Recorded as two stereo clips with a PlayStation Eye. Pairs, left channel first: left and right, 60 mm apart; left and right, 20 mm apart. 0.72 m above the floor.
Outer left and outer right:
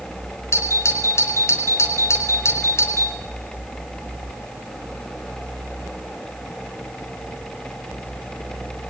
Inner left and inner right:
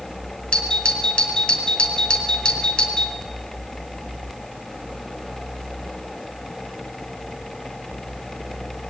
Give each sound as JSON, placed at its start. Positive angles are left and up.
{"t": 0.5, "sound": "a doorbell", "side_deg": 45, "distance_m": 3.5}